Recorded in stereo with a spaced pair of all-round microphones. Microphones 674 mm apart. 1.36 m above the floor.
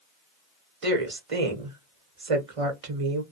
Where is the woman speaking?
50° right (ahead or behind), 1.0 m.